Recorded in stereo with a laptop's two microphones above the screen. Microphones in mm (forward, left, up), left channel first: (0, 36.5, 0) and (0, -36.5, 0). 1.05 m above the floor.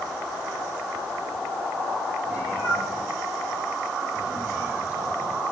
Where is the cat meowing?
25° right (ahead or behind), 8.5 m.